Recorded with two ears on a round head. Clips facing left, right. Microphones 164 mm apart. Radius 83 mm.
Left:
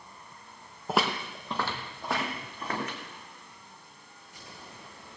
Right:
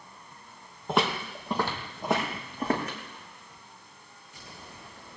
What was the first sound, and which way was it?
Footsteps, 5° left (ahead or behind).